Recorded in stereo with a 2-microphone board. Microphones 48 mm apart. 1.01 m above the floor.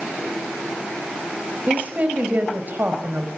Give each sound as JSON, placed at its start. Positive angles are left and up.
{"t": 1.7, "sound": "a woman speaking", "side_deg": -40, "distance_m": 5.0}